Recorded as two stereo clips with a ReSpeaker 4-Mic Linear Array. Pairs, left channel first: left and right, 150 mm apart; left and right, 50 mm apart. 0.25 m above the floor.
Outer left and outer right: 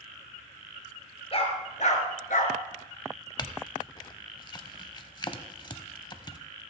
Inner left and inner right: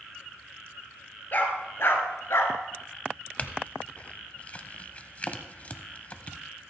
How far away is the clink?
About 0.7 m.